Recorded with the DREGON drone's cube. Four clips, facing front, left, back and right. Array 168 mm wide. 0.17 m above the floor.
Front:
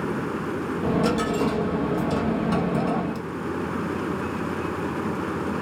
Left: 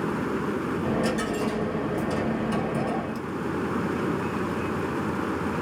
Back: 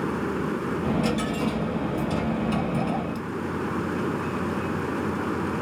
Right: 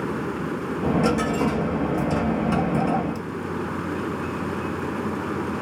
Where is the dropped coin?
55° right, 1.0 m.